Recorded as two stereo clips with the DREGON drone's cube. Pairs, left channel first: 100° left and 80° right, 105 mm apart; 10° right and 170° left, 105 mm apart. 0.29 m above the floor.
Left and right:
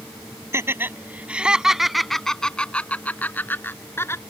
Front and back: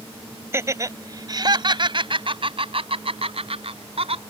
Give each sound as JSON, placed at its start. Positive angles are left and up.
{"t": 0.5, "sound": "laughter", "azimuth_deg": -135}